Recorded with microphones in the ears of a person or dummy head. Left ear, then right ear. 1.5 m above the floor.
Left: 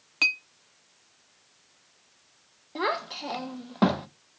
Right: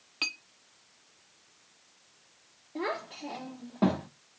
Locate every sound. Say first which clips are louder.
0.2 s a clink: left 9 dB; 20° left (ahead or behind), 0.7 m
2.8 s a child speaking: left 6 dB; 55° left (ahead or behind), 1.0 m